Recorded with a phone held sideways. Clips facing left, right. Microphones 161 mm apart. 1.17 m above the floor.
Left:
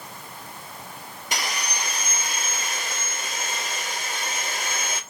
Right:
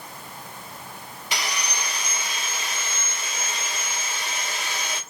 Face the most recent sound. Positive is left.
turn(degrees=45)  # may be behind; listen again after turning